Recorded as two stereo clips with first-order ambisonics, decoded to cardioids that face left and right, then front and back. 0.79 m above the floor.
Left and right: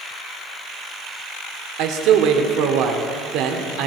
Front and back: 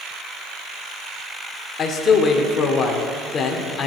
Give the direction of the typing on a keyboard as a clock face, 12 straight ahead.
I don't hear typing on a keyboard.